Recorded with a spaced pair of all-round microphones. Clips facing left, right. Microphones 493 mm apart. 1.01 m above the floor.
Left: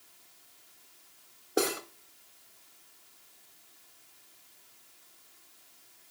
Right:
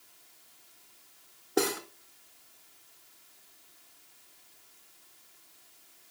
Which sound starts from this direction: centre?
Cutlery clinking, at 1.6 s.